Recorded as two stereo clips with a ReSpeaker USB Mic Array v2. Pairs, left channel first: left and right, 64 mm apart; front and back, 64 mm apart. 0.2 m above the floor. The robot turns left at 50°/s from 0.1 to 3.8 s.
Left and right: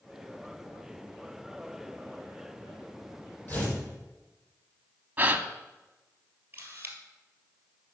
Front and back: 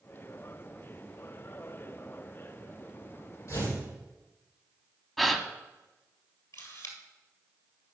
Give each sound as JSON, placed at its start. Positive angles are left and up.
{"t": 3.5, "sound": "tearing paper", "azimuth_deg": 30, "distance_m": 5.5}
{"t": 5.2, "sound": "a gasp", "azimuth_deg": -85, "distance_m": 0.7}
{"t": 6.5, "sound": "a camera shutter", "azimuth_deg": -30, "distance_m": 2.0}